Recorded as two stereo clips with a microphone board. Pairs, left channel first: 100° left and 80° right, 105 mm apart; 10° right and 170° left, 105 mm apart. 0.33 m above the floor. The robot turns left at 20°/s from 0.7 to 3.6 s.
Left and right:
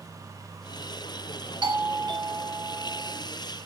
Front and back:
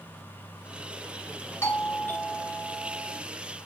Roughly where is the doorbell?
Right.